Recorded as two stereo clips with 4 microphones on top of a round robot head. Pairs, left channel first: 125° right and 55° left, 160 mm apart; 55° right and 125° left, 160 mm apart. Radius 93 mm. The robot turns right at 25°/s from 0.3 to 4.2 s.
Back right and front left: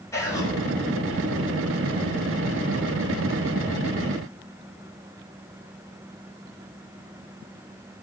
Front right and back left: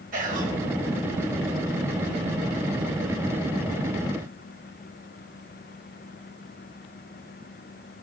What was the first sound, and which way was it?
Whispering, 160° left.